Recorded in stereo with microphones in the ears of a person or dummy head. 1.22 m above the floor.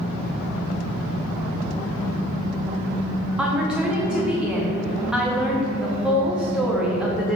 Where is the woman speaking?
5° right (ahead or behind), 0.7 m.